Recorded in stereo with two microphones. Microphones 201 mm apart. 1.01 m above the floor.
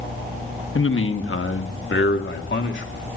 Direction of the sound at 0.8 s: 75° left (ahead or behind).